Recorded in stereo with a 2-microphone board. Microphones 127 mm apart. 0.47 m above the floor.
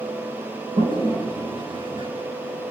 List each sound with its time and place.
0.8 s a toilet flushing: 40° right (ahead or behind), 3.5 m